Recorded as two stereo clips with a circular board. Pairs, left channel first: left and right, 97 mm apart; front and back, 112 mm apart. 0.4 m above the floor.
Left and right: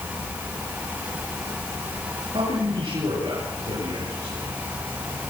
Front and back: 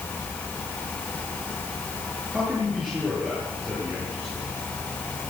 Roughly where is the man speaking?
Right.